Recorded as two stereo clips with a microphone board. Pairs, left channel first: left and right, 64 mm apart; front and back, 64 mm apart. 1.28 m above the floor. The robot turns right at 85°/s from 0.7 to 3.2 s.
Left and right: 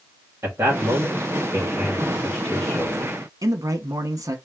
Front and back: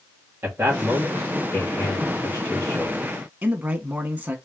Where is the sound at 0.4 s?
130° right, 1.5 m; by 3.0 s 70° left, 1.5 m.